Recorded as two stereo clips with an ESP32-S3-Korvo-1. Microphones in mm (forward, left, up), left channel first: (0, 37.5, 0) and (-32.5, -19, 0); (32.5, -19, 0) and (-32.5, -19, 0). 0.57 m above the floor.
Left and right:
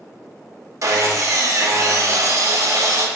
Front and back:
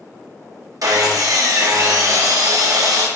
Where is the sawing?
155° right, 0.6 m.